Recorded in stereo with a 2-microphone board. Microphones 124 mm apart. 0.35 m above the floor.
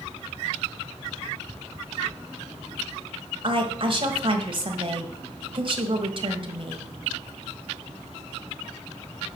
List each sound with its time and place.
3.4 s a woman speaking: 45° right (ahead or behind), 1.4 m